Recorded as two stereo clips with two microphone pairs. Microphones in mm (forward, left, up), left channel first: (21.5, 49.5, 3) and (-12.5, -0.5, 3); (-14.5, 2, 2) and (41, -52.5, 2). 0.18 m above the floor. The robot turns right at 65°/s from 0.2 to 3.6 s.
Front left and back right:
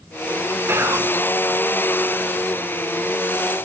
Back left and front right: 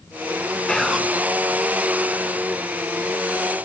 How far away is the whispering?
About 1.6 m.